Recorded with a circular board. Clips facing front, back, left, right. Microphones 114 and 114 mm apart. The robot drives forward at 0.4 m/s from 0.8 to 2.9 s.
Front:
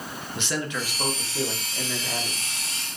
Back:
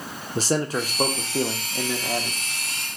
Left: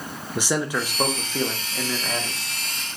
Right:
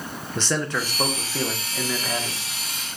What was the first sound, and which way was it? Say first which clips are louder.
A man speaking: back 7 dB, left 1 dB; 165° left.